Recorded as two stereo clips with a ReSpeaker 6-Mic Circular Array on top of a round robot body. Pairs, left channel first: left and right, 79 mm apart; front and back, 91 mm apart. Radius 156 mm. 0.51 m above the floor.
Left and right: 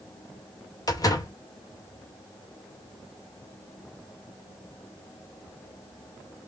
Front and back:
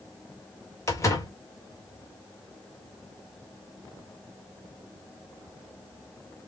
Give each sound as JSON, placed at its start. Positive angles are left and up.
{"t": 0.9, "sound": "a door slam", "azimuth_deg": 55, "distance_m": 2.0}